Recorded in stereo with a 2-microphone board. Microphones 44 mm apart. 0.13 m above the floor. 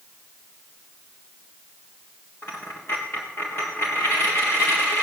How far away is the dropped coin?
About 3.5 m.